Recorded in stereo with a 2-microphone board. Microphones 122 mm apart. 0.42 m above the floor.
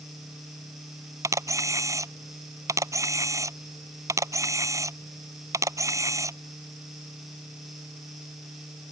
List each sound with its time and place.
1.2 s a camera shutter: 25° right (ahead or behind)